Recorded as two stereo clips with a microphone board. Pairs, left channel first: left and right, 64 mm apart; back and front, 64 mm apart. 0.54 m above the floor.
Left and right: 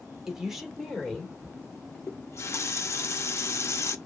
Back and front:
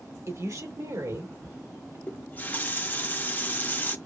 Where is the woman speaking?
10° right, 1.6 m; by 2.0 s 15° left, 2.5 m.